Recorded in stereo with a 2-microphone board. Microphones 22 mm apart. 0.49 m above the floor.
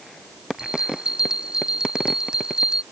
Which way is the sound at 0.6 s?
40° right (ahead or behind).